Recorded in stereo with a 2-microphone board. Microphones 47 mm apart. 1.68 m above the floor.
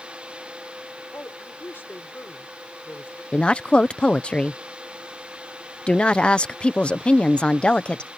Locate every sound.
1.1 s a man speaking: 50° left (ahead or behind)
3.3 s a woman speaking: 25° left (ahead or behind)